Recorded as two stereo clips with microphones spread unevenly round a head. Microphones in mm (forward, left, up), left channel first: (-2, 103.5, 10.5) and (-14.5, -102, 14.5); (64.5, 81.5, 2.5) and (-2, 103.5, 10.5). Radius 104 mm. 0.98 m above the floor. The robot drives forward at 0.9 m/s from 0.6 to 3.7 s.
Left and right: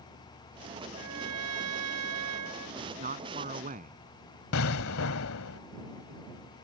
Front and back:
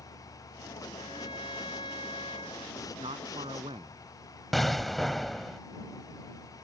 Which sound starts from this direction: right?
A trumpet, at 0.9 s.